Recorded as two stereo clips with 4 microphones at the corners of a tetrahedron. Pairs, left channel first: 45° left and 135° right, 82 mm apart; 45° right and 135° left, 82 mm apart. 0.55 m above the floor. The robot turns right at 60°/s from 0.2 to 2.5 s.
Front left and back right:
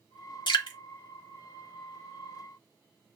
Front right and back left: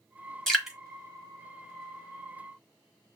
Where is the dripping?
40° left, 1.1 m; by 0.8 s 55° left, 1.1 m.